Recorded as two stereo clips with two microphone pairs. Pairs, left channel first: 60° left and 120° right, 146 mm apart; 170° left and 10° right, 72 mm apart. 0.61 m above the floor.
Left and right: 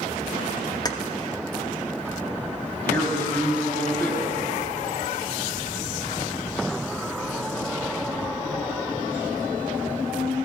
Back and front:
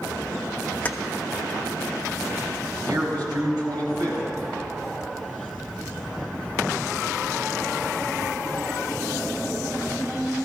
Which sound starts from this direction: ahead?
A man speaking, at 2.9 s.